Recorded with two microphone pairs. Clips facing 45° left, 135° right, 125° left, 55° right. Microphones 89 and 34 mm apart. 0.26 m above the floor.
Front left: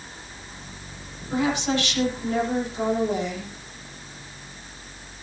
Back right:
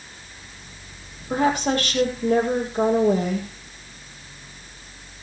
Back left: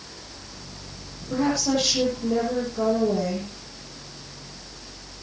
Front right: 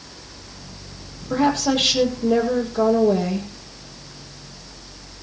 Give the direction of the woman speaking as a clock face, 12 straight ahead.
3 o'clock.